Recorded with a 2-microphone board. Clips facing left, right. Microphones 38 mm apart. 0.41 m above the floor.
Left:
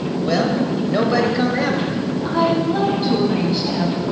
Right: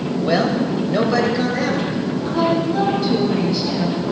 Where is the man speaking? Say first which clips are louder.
Right 1 dB; 15° right (ahead or behind), 1.7 m; by 2.1 s 35° left (ahead or behind), 2 m.